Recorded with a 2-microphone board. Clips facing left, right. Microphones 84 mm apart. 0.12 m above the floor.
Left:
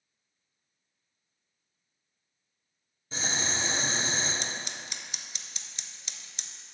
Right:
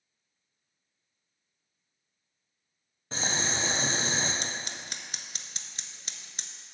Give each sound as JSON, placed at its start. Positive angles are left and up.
{"t": 3.1, "sound": "boiling", "side_deg": -60, "distance_m": 2.0}
{"t": 4.4, "sound": "scissors", "side_deg": -45, "distance_m": 0.6}